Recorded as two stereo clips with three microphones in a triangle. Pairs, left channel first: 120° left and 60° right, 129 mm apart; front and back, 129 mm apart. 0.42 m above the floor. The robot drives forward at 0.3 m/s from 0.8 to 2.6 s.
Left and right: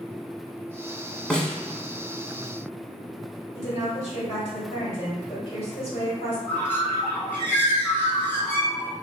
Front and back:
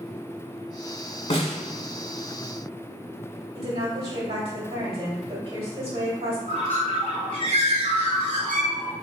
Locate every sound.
1.3 s a snare drum: 35° left, 0.7 m; by 1.6 s 40° left, 0.6 m
3.5 s a woman speaking: 150° left, 1.9 m
6.5 s a bird: 165° right, 1.7 m